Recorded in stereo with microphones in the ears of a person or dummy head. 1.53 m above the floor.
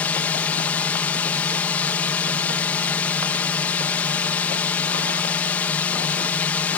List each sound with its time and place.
0.0 s a drone: 5° left (ahead or behind)